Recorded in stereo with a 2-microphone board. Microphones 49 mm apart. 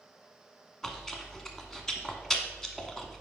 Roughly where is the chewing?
Centre.